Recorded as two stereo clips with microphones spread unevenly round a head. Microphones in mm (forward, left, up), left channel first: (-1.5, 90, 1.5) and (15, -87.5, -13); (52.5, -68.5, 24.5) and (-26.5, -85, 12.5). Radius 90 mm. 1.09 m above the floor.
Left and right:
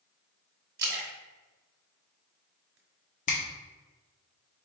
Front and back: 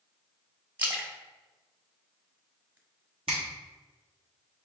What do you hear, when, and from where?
0.8 s a splash: 100° right, 1.3 m
3.3 s a finger snap: 140° left, 0.9 m